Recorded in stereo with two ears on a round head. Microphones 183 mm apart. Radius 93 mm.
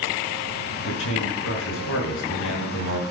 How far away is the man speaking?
About 6.5 m.